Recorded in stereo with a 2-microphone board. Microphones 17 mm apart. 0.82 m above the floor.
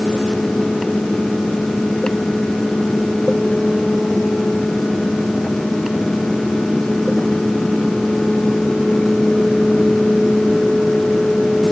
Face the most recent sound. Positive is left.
No sound to turn to.